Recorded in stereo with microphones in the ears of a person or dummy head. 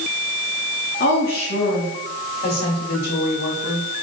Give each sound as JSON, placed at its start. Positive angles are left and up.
{"t": 1.0, "sound": "a woman speaking", "side_deg": 55, "distance_m": 5.0}